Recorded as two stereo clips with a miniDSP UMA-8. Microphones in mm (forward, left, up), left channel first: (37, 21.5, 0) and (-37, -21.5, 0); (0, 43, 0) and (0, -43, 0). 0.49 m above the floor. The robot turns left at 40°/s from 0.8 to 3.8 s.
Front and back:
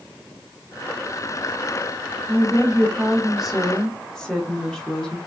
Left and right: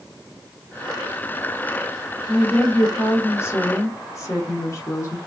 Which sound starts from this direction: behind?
A woman speaking, at 2.3 s.